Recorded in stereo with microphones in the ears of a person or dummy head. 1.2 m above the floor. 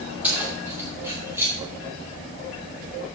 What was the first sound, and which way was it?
Keys jangling, 10° right (ahead or behind).